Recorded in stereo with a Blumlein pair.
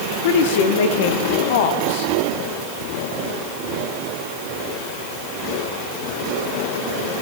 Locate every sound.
0.2 s a woman speaking: 50° left, 1.1 m